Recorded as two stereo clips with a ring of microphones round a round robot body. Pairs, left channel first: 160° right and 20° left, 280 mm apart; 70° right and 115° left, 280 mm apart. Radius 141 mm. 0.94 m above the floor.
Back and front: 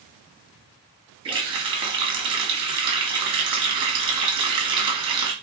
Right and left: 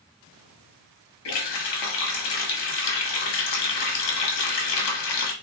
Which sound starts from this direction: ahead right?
A running tap, at 1.2 s.